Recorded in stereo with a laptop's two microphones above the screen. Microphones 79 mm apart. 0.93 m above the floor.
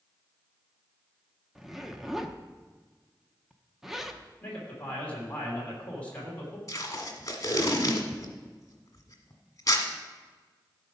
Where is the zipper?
5° right (ahead or behind), 0.6 m.